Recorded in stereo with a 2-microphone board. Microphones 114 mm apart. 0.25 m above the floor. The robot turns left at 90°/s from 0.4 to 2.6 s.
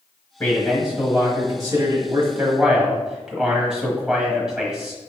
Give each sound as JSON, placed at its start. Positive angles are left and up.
{"t": 0.4, "sound": "a man speaking", "azimuth_deg": 30, "distance_m": 1.1}